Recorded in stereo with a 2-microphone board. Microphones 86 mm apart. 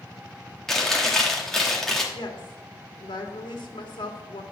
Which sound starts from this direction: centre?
Chewing, at 0.7 s.